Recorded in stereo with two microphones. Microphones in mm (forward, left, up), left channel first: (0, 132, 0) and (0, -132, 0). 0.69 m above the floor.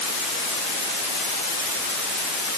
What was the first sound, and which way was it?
Only background noise.